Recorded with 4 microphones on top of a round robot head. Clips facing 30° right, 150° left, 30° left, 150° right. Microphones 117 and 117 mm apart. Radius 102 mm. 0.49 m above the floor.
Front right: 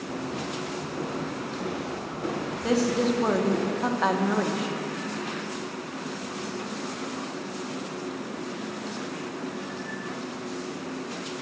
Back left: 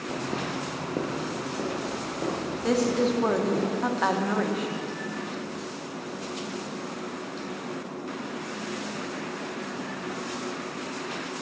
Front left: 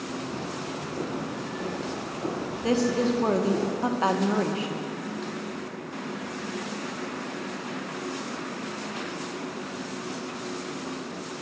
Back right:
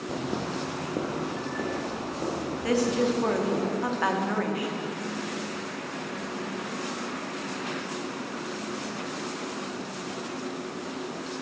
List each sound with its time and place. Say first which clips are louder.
0.1 s footsteps: back left 2 dB, back right 5 dB; 140° right, 0.9 m; by 3.6 s 165° left, 6 m
2.6 s a woman speaking: even, front left 1 dB; 55° left, 0.8 m